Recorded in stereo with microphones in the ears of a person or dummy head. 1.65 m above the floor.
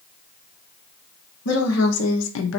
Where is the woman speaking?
90° left, 1.3 m; by 2.6 s 75° left (ahead or behind), 0.8 m.